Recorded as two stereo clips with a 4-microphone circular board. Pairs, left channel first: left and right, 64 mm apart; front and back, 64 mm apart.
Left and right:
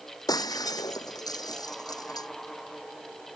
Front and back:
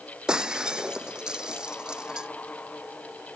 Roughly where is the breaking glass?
Left.